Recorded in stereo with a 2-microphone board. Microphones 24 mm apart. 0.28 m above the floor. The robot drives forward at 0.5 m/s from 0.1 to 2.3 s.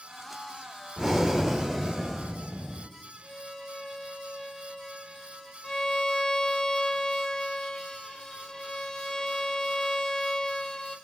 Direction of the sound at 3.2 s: 30° left (ahead or behind).